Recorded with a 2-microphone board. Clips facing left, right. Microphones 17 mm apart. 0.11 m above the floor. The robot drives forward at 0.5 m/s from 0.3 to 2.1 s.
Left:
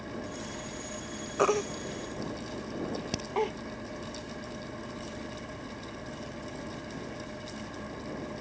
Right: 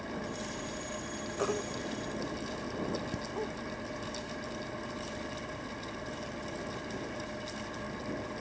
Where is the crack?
60° left (ahead or behind).